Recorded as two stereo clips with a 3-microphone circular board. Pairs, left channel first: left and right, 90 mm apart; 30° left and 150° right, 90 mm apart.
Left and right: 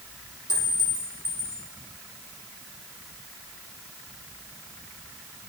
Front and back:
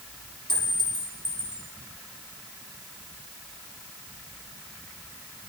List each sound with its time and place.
0.5 s a clink: 50° left, 6.5 m